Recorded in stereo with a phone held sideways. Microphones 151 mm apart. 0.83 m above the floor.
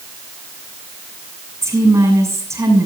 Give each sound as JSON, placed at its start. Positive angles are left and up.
{"t": 1.6, "sound": "a woman speaking", "side_deg": -20, "distance_m": 6.5}